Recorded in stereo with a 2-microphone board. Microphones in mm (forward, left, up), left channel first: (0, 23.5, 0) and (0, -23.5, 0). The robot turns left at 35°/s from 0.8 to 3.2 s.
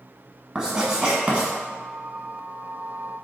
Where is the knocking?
I don't hear knocking.